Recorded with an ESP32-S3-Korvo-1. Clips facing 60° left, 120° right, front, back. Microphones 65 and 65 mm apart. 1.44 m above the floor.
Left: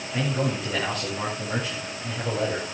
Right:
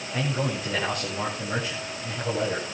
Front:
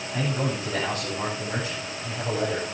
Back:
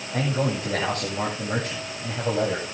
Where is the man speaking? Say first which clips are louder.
Left 2 dB, back 3 dB; 150° left, 8.5 m.